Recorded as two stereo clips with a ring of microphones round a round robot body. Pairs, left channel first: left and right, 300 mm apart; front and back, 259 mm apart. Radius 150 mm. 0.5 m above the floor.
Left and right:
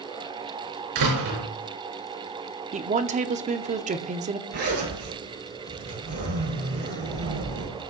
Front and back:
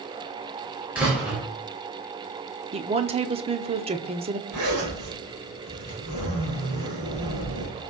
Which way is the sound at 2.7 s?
135° right.